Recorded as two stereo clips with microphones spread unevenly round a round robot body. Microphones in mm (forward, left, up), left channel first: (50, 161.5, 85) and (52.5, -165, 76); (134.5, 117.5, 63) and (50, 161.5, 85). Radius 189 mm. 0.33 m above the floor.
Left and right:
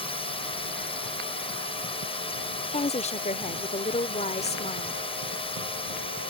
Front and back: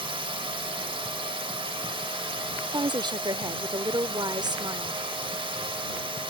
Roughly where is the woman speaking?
Behind left.